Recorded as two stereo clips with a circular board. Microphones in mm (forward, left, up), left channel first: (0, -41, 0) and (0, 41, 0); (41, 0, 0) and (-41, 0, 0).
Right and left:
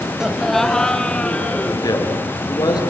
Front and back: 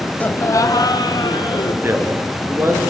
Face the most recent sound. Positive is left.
turn(degrees=-120)